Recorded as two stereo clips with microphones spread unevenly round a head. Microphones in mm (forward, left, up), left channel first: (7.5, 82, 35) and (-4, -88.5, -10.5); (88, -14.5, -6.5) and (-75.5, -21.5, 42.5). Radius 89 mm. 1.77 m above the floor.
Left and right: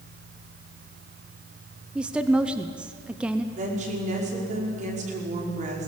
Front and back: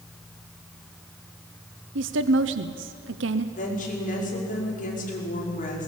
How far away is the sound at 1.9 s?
About 0.9 m.